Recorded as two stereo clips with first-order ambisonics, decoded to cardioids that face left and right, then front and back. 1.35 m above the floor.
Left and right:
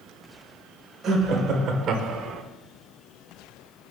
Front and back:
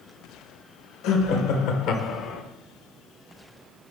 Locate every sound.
1.0 s laughter: 25° right, 1.5 m; by 2.4 s 40° right, 0.7 m